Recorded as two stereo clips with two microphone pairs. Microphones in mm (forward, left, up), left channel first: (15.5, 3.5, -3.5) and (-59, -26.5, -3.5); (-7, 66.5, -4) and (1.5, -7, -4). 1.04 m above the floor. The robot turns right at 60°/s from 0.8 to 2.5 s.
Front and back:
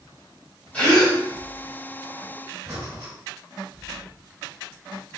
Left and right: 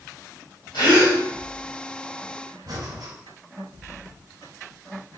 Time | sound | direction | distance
0.7 | a gasp | 100° left | 2.5 m
2.7 | breathing | 105° right | 2.5 m